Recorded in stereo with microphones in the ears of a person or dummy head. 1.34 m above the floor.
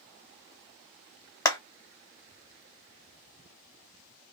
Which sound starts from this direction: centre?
A clap, at 1.4 s.